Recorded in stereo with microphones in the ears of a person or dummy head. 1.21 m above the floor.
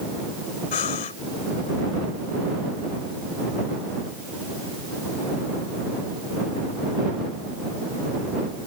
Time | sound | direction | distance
0.7 | breathing | 35° left (ahead or behind) | ?